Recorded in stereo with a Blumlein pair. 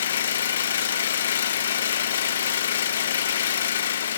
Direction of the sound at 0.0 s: 65° left.